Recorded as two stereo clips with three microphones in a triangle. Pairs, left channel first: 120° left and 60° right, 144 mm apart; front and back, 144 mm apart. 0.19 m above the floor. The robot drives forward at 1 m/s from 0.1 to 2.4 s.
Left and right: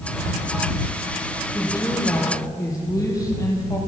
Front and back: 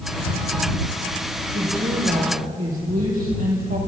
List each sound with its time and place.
1.5 s a woman speaking: 175° right, 5 m